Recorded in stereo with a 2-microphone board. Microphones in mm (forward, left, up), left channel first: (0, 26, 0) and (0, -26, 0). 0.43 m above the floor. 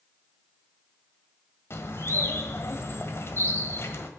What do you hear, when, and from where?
1.7 s a bird: 55° left (ahead or behind), 1.4 m